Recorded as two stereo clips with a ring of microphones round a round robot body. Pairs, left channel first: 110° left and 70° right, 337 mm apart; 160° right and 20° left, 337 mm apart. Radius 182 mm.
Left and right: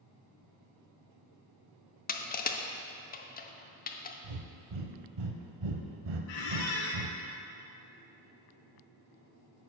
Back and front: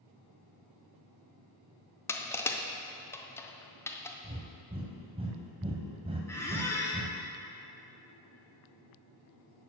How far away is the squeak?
About 1.1 m.